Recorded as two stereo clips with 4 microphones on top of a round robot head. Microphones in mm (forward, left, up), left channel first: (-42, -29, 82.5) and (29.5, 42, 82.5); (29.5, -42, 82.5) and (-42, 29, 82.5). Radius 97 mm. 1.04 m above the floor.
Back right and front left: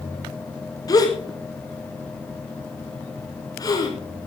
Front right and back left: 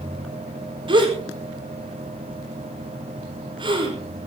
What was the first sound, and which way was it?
A gasp, 170° left.